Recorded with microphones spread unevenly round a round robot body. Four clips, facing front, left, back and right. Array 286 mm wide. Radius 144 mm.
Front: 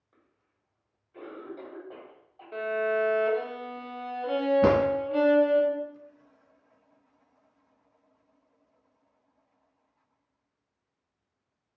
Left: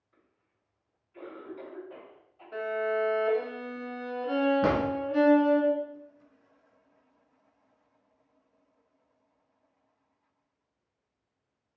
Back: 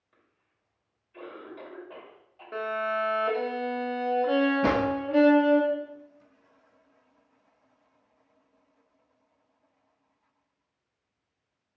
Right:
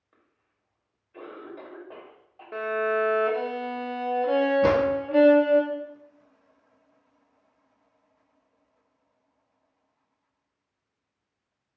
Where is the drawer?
5° left, 2.5 m.